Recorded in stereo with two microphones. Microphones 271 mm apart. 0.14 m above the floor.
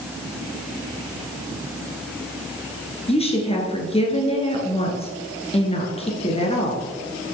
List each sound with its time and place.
3.1 s a woman speaking: 20° left (ahead or behind), 2.5 m